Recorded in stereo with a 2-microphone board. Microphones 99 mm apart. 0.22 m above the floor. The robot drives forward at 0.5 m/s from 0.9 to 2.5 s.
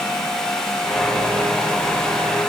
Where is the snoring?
I don't hear snoring.